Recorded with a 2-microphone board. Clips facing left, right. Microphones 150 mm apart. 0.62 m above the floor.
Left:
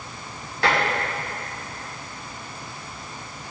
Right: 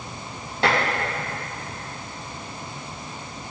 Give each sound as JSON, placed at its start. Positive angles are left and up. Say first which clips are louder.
{"t": 0.6, "sound": "dishes clattering", "louder": "right 1 dB", "side_deg": -30, "distance_m": 3.5}